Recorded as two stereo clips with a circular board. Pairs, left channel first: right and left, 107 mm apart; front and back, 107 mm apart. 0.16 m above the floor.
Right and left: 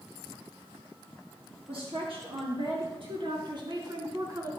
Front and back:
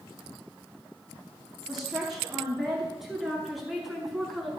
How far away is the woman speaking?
About 3.5 m.